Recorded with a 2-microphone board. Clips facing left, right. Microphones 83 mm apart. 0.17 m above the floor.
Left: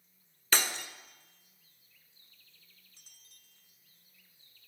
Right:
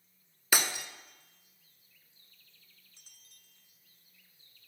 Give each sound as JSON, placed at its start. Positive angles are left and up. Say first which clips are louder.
{"t": 0.5, "sound": "breaking glass", "louder": "right 1 dB", "side_deg": -10, "distance_m": 0.5}